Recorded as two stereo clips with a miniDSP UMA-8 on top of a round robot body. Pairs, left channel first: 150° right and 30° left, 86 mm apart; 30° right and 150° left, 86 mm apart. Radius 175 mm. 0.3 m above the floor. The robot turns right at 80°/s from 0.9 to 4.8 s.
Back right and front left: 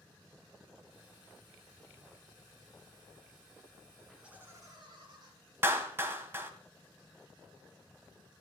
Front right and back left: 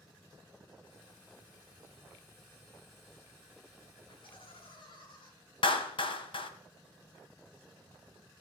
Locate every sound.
4.1 s laughter: 60° right, 6 m; by 5.3 s 5° right, 6 m
5.6 s a clap: 35° right, 2 m